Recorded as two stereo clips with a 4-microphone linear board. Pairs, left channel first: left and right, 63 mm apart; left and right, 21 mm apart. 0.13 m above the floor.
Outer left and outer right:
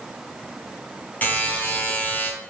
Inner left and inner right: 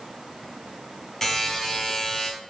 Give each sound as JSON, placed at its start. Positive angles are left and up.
{"t": 1.2, "sound": "a buzzer", "side_deg": 25, "distance_m": 1.0}